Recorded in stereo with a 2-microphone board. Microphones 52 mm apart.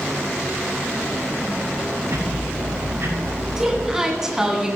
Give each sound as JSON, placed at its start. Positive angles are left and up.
{"t": 2.1, "sound": "ticking", "side_deg": -85, "distance_m": 6.5}
{"t": 3.6, "sound": "a woman speaking", "side_deg": -10, "distance_m": 2.5}